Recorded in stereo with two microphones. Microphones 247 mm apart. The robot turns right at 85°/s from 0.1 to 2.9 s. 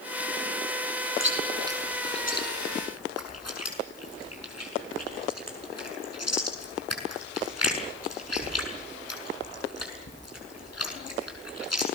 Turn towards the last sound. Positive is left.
turn(degrees=85)